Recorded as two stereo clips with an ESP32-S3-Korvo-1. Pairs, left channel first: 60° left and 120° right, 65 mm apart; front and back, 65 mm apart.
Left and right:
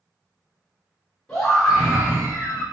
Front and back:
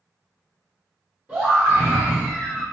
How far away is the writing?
I don't hear writing.